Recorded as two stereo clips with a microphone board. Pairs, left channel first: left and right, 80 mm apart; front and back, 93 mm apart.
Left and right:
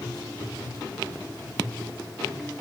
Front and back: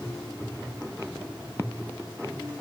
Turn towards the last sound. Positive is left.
No sound to turn to.